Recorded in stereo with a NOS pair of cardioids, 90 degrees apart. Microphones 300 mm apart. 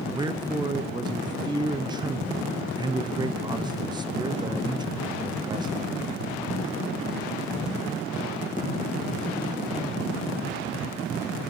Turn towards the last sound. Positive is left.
turn(degrees=-15)